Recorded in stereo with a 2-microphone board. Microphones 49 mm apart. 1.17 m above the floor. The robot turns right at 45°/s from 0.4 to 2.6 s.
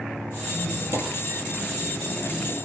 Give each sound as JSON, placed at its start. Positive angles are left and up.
{"t": 0.5, "sound": "a squeak", "azimuth_deg": -145, "distance_m": 4.0}